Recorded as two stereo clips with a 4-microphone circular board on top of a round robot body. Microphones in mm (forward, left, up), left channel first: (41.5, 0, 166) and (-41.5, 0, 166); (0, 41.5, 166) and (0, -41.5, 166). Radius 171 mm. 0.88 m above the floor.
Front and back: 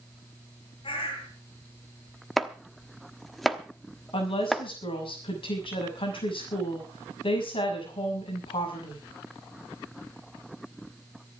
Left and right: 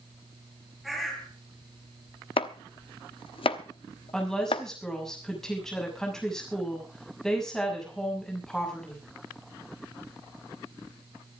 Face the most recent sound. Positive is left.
turn(degrees=5)